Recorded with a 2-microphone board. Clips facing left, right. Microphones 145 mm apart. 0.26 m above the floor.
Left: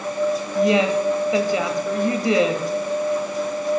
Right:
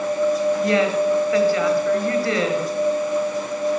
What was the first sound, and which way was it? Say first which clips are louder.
A woman speaking: left 1 dB; 20° left (ahead or behind).